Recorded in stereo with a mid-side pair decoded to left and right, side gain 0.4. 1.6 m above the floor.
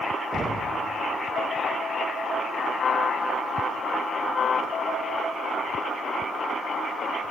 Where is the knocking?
40° right, 0.7 m.